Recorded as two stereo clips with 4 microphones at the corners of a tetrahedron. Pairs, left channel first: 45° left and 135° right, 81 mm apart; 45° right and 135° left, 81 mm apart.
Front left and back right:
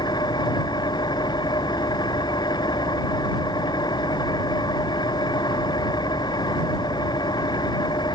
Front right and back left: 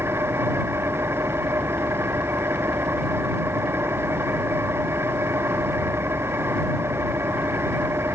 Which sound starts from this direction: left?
An engine running, at 0.0 s.